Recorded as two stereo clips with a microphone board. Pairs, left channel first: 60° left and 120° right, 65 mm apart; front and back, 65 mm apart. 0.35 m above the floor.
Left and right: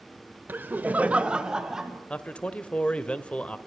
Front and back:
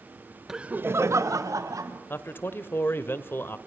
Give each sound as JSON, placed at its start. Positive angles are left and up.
{"t": 0.5, "sound": "laughter", "azimuth_deg": -100, "distance_m": 0.9}
{"t": 2.1, "sound": "a man speaking", "azimuth_deg": 0, "distance_m": 1.0}